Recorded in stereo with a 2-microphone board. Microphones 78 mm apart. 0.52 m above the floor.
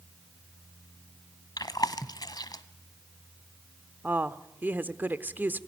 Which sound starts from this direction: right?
A woman speaking, at 4.0 s.